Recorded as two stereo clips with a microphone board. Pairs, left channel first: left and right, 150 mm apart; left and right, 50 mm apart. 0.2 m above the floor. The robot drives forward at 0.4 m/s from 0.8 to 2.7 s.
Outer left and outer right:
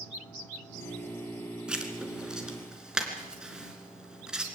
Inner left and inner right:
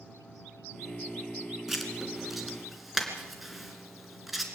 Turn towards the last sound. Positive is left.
turn(degrees=-5)  # may be behind; listen again after turning